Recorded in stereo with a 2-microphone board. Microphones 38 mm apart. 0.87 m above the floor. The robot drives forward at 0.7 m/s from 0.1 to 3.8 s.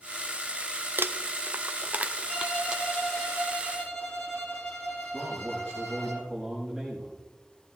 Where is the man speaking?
5° right (ahead or behind), 5.5 m.